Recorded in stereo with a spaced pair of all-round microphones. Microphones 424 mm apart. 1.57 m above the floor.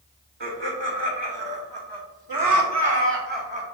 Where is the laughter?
75° right (ahead or behind), 1.5 m; by 3.6 s 15° right (ahead or behind), 1.1 m.